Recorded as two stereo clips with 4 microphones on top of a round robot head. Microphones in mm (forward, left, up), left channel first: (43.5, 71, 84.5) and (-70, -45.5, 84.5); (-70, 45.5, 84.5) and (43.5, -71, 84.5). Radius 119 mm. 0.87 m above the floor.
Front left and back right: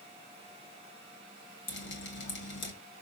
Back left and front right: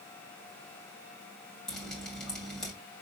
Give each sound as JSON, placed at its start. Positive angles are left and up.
{"t": 1.7, "sound": "dripping", "azimuth_deg": 50, "distance_m": 2.0}